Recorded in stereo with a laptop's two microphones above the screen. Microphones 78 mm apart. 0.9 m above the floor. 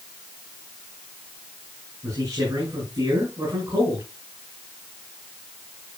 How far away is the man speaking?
About 10 m.